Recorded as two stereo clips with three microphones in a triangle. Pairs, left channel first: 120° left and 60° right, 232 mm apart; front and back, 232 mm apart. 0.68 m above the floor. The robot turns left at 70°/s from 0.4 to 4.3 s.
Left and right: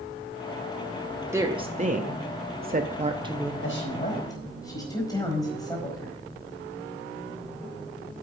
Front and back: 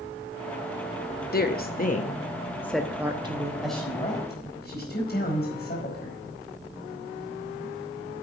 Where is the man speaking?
95° left, 4.5 m; by 6.2 s 45° left, 4.5 m.